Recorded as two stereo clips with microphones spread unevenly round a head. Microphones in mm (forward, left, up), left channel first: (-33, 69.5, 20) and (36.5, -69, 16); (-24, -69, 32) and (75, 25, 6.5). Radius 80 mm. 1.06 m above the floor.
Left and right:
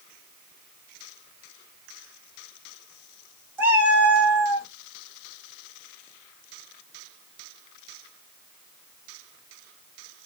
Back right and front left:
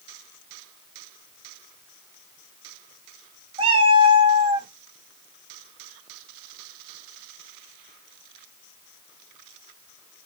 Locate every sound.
3.6 s a cat meowing: 10° left, 0.7 m